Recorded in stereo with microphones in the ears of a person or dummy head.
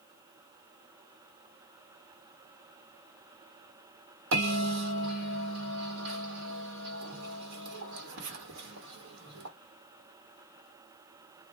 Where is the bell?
75° right (ahead or behind), 1.5 m.